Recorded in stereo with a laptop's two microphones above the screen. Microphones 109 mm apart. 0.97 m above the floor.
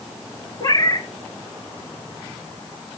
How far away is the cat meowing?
About 1.2 m.